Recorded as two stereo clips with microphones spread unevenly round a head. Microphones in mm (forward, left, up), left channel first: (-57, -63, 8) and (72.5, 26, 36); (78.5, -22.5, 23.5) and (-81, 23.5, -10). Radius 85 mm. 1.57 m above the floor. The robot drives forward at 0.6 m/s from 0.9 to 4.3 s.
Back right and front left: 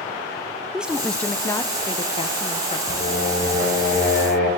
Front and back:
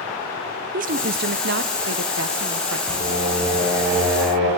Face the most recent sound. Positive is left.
turn(degrees=-175)